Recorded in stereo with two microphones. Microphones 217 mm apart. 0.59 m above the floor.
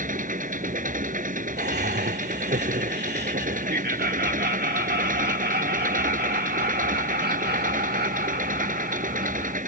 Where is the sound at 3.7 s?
45° right (ahead or behind).